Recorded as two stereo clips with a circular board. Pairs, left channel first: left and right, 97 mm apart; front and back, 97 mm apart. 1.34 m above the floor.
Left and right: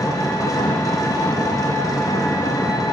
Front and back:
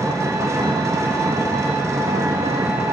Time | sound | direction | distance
0.0 | an engine running | 130° left | 0.8 m